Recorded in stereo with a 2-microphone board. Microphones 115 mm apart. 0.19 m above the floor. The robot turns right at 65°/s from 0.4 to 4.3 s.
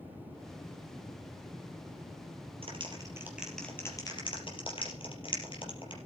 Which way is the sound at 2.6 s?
55° right (ahead or behind).